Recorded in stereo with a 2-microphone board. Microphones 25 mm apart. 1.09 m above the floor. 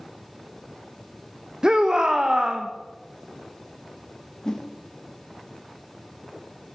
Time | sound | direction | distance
1.6 | a shout | 30° right (ahead or behind) | 0.8 m
4.5 | a whoosh | 20° left (ahead or behind) | 1.1 m